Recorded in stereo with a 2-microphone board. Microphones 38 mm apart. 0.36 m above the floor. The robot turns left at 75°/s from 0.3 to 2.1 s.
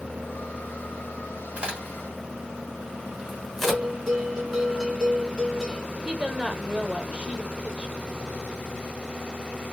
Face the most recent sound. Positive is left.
turn(degrees=-35)  # may be behind; listen again after turning